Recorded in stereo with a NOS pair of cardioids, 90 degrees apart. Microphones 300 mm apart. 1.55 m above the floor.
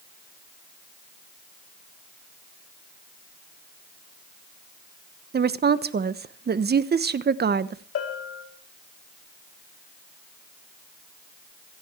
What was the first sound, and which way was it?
A woman speaking, 35° right.